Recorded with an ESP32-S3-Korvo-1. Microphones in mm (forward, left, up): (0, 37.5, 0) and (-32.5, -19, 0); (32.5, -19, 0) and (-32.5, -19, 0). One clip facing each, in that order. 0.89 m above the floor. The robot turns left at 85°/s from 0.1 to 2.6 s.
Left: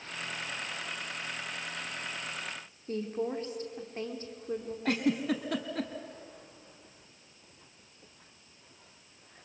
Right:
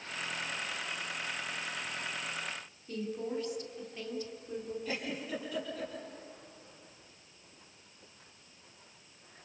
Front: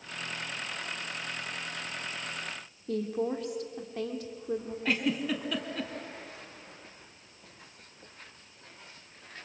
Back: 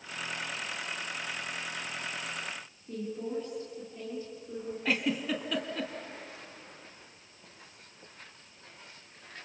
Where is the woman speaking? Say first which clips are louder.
Left 4 dB, front 5 dB; 5° left, 3 m.